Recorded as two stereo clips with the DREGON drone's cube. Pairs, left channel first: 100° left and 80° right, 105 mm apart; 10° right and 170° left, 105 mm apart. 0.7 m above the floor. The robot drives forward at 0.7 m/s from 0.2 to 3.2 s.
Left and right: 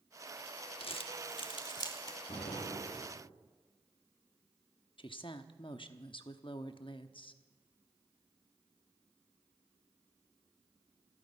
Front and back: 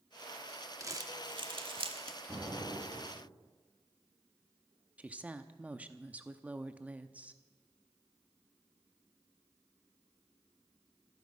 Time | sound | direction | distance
0.8 | crumpling | 110° left | 1.0 m
2.3 | an explosion | 75° left | 6 m
5.0 | a woman speaking | 95° left | 0.9 m